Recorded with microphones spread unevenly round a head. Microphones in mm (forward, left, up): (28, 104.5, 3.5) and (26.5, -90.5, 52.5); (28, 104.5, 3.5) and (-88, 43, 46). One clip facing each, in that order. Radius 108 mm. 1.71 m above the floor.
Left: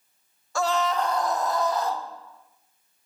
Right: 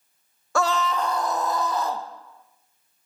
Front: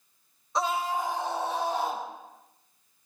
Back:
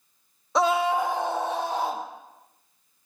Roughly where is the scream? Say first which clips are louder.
Right 1 dB, back 6 dB; behind right.